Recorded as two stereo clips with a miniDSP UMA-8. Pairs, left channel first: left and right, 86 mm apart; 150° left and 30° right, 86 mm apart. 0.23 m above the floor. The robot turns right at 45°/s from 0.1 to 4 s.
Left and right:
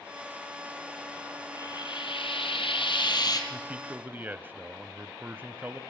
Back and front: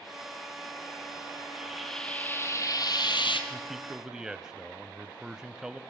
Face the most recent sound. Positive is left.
turn(degrees=-95)